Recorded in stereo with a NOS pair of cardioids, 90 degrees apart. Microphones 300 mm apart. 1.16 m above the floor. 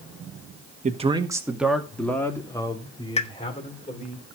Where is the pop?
20° left, 1.2 m.